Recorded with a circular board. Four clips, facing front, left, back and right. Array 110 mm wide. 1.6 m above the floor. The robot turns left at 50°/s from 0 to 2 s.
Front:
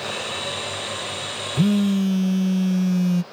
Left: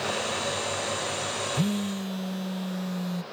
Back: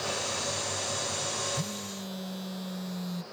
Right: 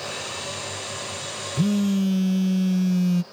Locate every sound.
1.6 s a phone buzzing: 5° right; by 3.2 s 30° right